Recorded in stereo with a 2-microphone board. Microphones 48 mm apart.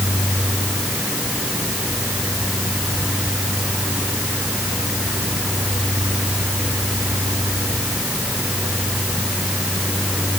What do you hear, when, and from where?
Only background noise.